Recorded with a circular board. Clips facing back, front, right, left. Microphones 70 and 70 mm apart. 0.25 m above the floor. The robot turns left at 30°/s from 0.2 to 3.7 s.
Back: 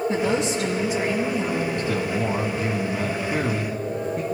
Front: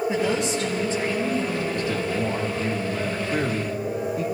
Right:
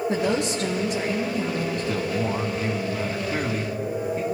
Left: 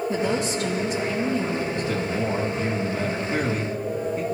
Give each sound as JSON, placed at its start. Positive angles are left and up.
{"t": 0.1, "sound": "a woman speaking", "azimuth_deg": -80, "distance_m": 4.5}
{"t": 1.8, "sound": "a man speaking", "azimuth_deg": -120, "distance_m": 2.5}